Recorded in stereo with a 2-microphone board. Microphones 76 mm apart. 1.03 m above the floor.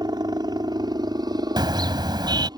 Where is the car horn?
75° right (ahead or behind).